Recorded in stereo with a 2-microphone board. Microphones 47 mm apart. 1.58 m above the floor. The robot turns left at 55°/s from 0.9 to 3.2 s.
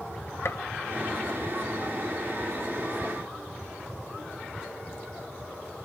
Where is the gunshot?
60° left (ahead or behind), 0.6 m.